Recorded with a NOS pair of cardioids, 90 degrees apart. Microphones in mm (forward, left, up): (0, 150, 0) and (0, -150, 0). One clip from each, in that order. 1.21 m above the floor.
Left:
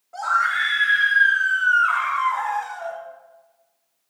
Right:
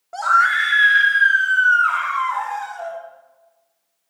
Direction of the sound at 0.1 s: 70° right.